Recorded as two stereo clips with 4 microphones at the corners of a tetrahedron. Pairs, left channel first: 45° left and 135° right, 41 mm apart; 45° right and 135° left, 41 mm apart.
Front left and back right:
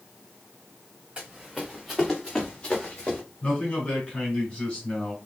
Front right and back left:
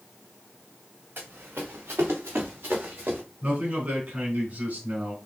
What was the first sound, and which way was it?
Running footsteps, 155° left.